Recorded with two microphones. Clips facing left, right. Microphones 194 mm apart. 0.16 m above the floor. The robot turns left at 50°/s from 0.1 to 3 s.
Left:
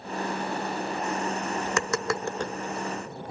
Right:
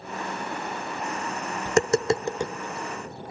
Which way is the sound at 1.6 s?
40° right (ahead or behind).